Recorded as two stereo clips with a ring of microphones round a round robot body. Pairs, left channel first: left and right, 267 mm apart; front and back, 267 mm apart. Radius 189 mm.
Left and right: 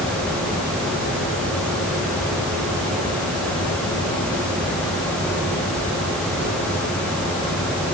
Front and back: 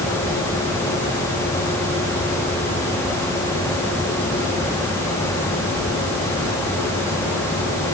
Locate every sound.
Only background noise.